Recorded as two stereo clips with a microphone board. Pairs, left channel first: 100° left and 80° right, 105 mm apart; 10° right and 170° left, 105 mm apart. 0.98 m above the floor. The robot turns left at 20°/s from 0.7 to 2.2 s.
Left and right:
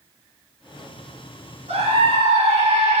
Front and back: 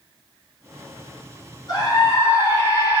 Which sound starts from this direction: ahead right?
A scream, at 1.7 s.